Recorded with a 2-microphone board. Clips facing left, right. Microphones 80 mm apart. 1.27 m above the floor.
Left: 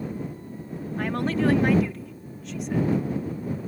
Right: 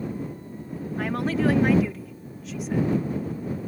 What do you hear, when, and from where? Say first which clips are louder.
1.0 s a woman speaking: even; centre (ahead or behind)